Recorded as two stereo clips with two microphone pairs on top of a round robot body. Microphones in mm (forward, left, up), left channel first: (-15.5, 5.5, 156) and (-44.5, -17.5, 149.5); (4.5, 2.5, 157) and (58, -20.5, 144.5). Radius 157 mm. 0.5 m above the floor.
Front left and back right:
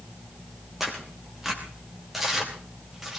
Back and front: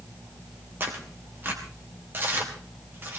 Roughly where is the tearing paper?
Ahead right.